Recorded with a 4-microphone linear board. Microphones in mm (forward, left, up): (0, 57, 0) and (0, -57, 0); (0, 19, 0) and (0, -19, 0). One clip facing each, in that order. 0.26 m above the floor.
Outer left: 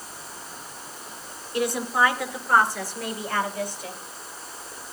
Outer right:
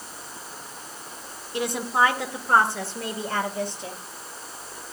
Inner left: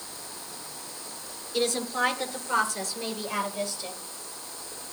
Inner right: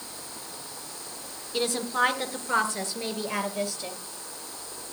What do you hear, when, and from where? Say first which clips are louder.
1.5 s a woman speaking: even, inner right 1 dB; 25° right (ahead or behind), 2.5 m